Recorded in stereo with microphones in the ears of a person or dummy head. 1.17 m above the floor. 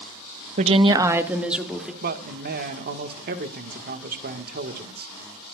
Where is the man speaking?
45° right (ahead or behind), 1.5 m.